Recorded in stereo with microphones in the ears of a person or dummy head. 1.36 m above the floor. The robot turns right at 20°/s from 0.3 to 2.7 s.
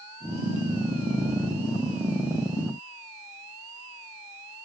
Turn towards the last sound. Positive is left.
No sound to turn to.